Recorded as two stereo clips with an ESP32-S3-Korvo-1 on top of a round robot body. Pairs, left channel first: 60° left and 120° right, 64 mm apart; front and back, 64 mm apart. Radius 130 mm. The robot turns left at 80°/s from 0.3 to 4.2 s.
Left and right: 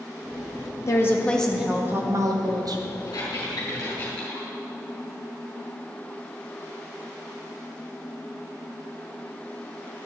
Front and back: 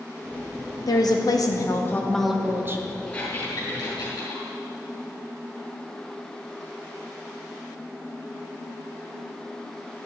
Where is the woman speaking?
20° left, 1.6 m; by 2.8 s 135° right, 1.6 m.